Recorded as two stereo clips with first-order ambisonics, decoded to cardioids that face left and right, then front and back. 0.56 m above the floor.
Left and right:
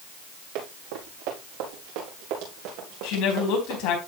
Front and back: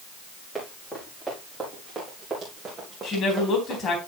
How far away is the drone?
I don't hear a drone.